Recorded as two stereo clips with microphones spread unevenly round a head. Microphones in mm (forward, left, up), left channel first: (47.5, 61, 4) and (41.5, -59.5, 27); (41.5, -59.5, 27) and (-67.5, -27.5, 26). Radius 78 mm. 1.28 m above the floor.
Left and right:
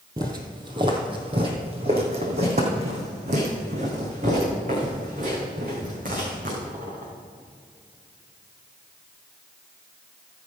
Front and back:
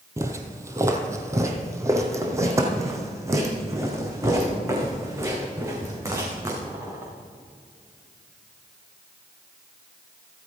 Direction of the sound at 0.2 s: 140° right.